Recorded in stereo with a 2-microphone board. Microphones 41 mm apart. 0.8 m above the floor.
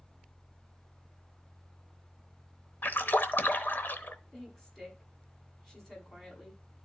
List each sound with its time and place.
2.8 s a splash: 55° left (ahead or behind), 0.8 m
4.3 s a woman speaking: 10° left (ahead or behind), 5.5 m